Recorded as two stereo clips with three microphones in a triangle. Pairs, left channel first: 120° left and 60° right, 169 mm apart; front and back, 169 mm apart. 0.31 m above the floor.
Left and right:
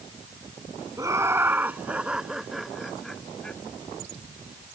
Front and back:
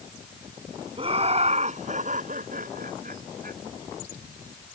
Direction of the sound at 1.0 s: 125° right.